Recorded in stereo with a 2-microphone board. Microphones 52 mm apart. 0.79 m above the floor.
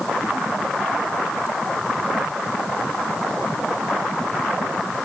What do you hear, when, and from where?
Only background noise.